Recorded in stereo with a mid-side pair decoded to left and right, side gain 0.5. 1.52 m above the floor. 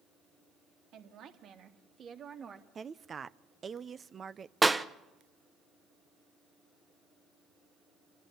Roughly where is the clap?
Ahead.